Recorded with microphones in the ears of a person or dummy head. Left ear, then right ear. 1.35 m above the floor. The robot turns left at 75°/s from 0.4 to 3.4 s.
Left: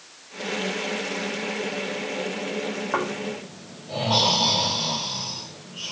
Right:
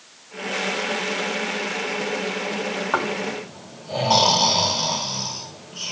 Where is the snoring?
85° right, 2.5 m; by 5.9 s 55° right (ahead or behind), 2.5 m.